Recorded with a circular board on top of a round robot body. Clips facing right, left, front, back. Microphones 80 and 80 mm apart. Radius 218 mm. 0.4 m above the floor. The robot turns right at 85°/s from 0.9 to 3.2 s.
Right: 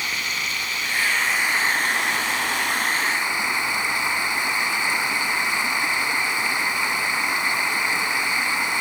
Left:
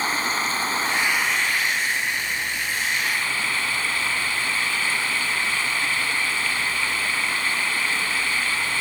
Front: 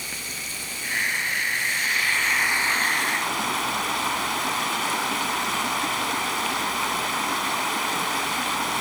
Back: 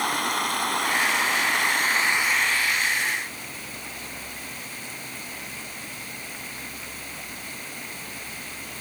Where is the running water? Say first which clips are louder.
Left 4 dB, back 12 dB; 145° left; by 8.8 s 20° right.